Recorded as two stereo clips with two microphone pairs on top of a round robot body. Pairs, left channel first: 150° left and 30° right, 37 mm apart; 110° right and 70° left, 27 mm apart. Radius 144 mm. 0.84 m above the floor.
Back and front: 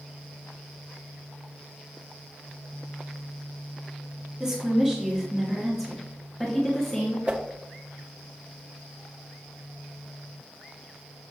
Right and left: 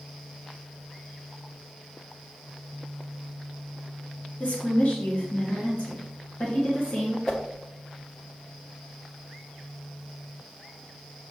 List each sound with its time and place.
4.4 s a woman speaking: 95° right, 2 m; by 7.2 s 140° right, 2 m
7.3 s a whoosh: 75° right, 1.2 m